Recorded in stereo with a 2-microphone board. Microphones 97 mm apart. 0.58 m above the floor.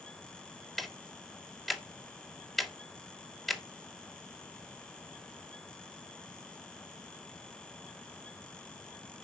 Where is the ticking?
Centre (ahead or behind), 1.4 m.